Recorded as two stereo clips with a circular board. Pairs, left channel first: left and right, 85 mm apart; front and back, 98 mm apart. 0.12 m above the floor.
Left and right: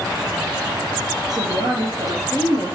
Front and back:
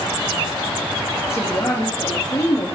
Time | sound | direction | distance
1.3 | a woman speaking | 60° right | 3 m